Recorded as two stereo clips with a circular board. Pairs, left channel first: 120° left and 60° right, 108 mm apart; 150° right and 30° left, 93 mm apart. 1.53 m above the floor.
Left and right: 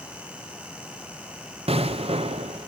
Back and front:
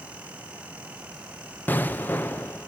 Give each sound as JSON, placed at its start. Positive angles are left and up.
{"t": 1.7, "sound": "an explosion", "azimuth_deg": -80, "distance_m": 0.5}